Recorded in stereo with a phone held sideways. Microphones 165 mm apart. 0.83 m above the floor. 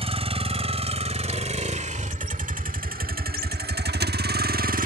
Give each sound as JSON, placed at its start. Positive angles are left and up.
{"t": 0.0, "sound": "a vehicle", "side_deg": -35}